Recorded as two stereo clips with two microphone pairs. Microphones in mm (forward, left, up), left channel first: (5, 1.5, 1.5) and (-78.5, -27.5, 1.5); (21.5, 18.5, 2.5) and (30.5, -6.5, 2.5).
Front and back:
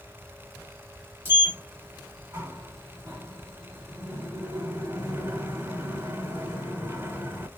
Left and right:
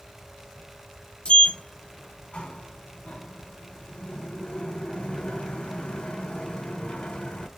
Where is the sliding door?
145° left, 1.9 m.